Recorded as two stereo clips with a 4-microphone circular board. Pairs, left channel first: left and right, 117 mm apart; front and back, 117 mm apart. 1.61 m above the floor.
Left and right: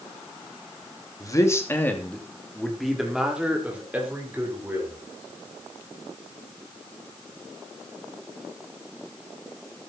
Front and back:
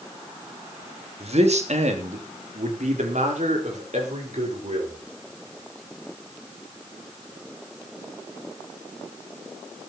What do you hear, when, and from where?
1.2 s a man speaking: 150° left, 3 m; by 5.0 s 160° right, 6 m